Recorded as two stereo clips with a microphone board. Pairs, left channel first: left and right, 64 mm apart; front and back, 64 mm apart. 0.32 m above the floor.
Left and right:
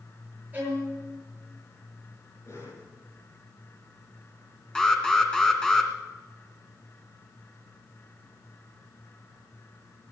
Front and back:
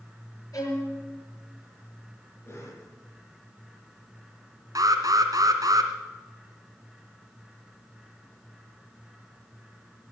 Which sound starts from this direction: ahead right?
A violin, at 0.5 s.